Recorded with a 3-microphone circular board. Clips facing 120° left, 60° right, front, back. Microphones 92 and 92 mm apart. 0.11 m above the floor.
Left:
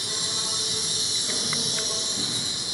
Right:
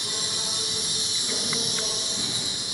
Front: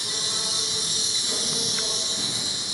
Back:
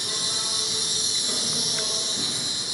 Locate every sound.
0.0 s an insect: 165° left, 1.0 m